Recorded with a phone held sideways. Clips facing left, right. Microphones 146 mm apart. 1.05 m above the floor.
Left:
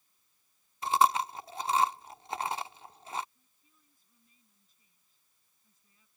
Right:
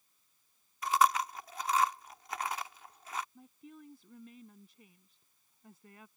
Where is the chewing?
30° left (ahead or behind).